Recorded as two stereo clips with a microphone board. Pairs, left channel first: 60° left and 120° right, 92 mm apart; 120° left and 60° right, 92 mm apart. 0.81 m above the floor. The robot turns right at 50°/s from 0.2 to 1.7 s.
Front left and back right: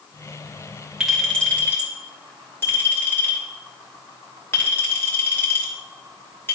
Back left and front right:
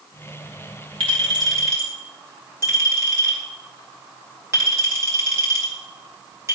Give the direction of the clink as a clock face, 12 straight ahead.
1 o'clock.